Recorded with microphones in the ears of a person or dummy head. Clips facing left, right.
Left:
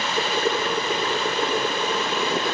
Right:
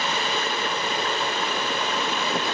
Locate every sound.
0.2 s boiling: 50° left (ahead or behind), 2.0 m